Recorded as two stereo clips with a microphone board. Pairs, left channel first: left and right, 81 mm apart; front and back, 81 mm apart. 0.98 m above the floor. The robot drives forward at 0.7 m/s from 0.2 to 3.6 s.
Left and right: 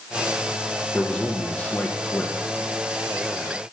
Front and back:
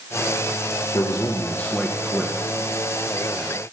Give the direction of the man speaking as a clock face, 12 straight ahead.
12 o'clock.